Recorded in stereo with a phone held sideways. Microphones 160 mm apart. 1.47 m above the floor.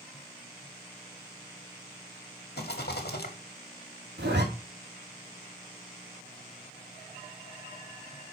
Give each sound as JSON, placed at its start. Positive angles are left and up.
{"t": 2.6, "sound": "a rattle", "side_deg": 70, "distance_m": 1.8}
{"t": 4.2, "sound": "a zipper", "side_deg": -85, "distance_m": 2.5}